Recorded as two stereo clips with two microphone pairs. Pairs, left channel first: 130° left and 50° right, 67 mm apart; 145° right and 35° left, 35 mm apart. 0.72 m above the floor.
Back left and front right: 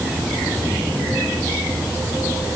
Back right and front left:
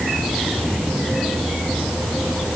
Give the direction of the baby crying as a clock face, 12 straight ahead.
I don't hear a baby crying.